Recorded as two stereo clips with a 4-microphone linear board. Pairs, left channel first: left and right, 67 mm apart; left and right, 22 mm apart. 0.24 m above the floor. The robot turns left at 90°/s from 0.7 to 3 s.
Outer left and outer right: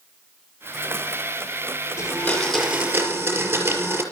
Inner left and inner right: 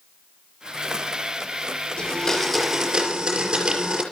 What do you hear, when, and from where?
2.0 s a blender: 60° left, 5 m; by 4.0 s 35° right, 5 m